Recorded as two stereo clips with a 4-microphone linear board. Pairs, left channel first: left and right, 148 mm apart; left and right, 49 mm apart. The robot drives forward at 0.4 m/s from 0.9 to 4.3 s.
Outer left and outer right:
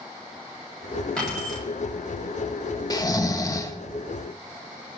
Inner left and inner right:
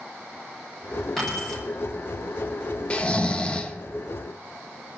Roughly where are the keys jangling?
Centre.